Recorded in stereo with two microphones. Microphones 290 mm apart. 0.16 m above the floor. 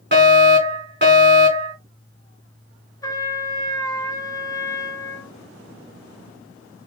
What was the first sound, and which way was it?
A fire alarm, 35° right (ahead or behind).